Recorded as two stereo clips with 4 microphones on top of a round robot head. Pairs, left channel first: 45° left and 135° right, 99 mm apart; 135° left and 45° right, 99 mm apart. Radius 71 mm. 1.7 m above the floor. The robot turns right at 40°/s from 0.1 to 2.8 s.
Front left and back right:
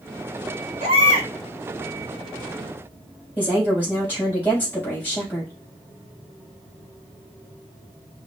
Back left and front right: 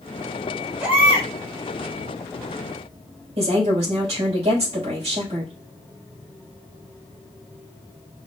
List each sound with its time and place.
0.8 s a baby crying: 125° right, 1.0 m; by 1.3 s 105° right, 1.0 m
3.4 s a woman speaking: 25° right, 3 m